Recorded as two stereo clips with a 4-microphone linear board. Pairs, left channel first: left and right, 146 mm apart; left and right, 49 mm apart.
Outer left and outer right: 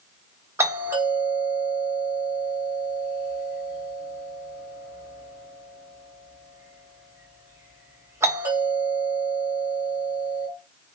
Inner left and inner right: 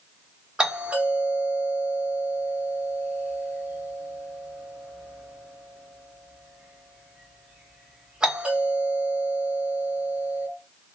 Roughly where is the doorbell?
Centre.